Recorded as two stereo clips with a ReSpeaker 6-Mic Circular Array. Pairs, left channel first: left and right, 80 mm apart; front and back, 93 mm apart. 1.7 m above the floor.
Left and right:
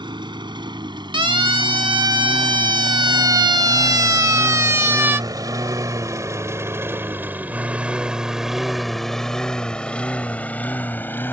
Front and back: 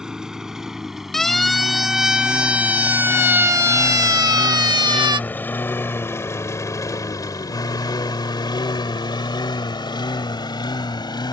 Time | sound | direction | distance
0.0 | a lawn mower | 100° right | ?
1.1 | a siren | 85° right | ?